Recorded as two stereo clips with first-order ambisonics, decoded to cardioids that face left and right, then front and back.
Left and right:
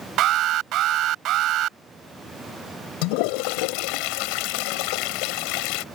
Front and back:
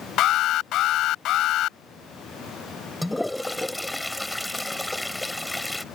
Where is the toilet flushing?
85° left.